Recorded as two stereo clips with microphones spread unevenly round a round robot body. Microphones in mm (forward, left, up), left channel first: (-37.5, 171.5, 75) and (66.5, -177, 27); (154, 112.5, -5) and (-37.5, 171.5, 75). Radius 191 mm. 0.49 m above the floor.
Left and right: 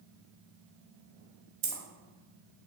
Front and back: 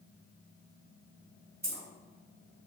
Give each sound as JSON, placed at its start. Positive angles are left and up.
{"t": 1.6, "sound": "keys jangling", "azimuth_deg": -105, "distance_m": 1.4}